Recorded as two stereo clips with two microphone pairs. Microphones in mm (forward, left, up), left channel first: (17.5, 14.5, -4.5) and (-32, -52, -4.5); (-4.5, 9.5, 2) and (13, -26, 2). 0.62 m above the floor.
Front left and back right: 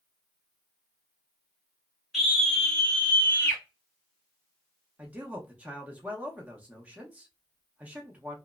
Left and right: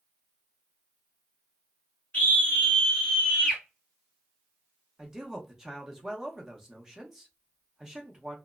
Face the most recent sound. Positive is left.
turn(degrees=-115)